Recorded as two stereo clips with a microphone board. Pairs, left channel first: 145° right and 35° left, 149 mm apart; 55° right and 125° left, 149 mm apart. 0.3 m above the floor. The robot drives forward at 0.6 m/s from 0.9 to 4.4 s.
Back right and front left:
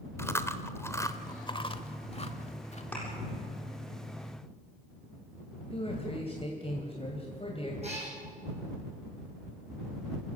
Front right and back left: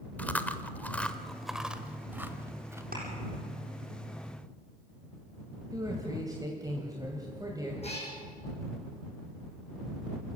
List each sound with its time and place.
0.2 s chewing: 115° right, 1.0 m; by 2.8 s 165° right, 1.6 m
2.9 s a thud: 135° left, 7.5 m
5.7 s a man speaking: 175° right, 2.5 m
7.8 s a cat meowing: 10° right, 6 m